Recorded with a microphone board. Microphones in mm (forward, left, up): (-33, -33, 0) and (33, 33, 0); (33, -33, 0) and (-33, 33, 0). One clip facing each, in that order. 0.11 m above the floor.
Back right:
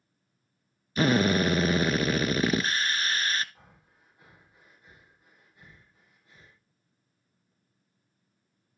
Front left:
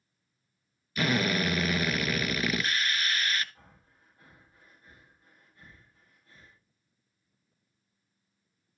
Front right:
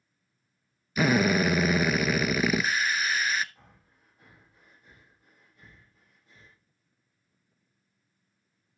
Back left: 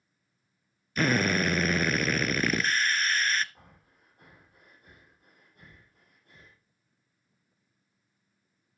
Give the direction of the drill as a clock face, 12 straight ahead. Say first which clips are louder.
Back right 5 dB, front right 3 dB; 4 o'clock.